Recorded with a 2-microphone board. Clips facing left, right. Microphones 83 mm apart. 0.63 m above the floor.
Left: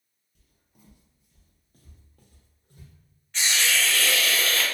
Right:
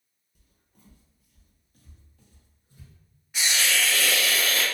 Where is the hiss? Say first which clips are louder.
Even; 10° right (ahead or behind), 0.6 m.